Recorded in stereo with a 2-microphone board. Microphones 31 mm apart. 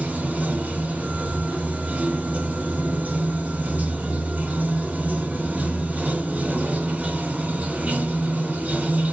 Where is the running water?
60° right (ahead or behind), 1.2 m.